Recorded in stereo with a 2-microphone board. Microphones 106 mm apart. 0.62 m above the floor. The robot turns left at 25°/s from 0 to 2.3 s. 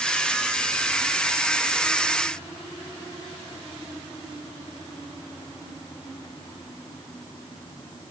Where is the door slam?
I don't hear a door slam.